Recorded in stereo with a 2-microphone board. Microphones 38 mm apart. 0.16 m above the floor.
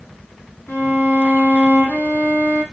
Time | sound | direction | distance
0.7 | a violin | 65° left (ahead or behind) | 6.5 m